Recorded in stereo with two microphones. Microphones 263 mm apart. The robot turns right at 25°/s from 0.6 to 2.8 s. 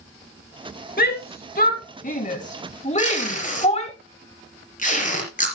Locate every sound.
1.0 s a shout: 35° left (ahead or behind), 1.0 m; by 4.0 s 25° left (ahead or behind), 1.0 m
3.0 s tape being pulled: 30° left (ahead or behind), 4 m